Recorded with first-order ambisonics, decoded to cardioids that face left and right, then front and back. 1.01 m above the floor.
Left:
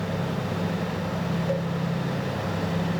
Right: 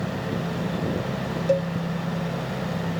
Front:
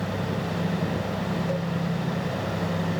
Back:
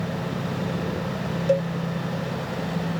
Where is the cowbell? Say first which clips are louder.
Right 8 dB, back 13 dB; 145° right, 1.0 m.